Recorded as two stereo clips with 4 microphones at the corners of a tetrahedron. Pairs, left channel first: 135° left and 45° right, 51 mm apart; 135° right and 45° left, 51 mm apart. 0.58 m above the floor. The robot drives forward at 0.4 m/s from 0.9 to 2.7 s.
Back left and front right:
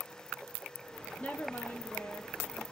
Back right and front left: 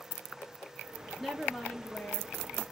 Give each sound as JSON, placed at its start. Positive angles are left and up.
{"t": 1.2, "sound": "a woman speaking", "azimuth_deg": 130, "distance_m": 0.6}